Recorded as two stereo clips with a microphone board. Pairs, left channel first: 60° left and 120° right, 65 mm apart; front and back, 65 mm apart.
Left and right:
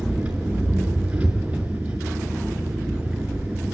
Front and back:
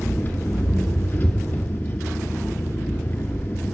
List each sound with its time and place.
0.0 s an engine running: 50° right, 1.8 m